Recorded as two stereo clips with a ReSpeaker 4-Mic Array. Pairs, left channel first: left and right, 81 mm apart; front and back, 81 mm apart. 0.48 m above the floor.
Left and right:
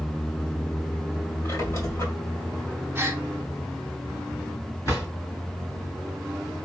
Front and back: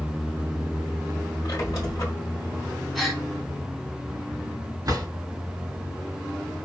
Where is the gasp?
85° right, 1.3 m.